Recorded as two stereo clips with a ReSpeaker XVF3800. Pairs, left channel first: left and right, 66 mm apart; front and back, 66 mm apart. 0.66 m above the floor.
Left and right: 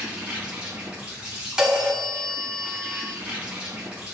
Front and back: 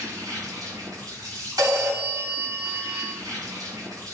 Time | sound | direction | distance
0.0 | an insect | 160° right | 4 m
1.6 | a phone ringing | 170° right | 3 m